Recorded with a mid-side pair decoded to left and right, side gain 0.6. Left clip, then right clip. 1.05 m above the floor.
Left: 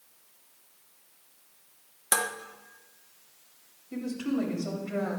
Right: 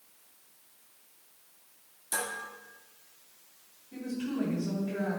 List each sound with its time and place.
2.1 s dishes clattering: 65° left, 0.7 m
3.9 s a woman speaking: 70° left, 2.5 m